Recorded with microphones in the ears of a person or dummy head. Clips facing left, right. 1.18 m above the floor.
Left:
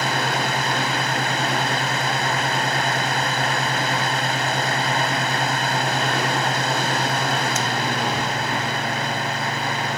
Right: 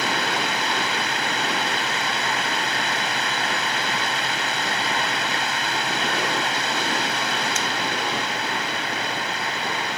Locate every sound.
0.0 s a fan: 45° left (ahead or behind)